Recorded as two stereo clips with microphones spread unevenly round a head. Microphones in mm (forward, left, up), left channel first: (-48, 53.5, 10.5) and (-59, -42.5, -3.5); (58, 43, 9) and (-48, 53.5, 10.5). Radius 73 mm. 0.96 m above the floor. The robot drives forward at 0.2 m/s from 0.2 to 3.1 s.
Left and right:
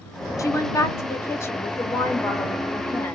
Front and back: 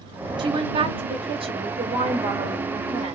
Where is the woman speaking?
145° left, 0.9 m; by 3.1 s 160° left, 1.3 m.